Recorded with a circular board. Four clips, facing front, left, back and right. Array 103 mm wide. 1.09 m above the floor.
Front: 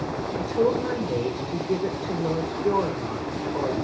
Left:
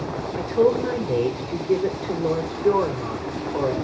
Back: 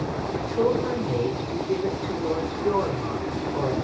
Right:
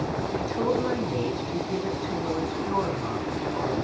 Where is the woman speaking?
85° left, 3.5 m.